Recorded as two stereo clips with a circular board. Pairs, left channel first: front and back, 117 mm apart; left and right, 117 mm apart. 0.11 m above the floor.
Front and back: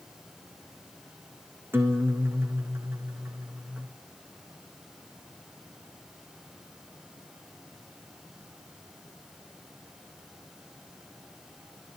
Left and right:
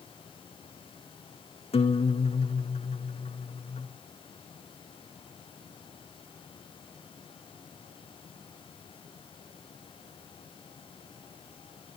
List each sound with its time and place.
1.7 s a guitar: 110° left, 2 m